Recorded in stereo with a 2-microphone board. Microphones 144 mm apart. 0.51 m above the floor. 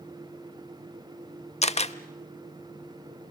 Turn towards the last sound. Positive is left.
turn(degrees=45)  # may be behind; listen again after turning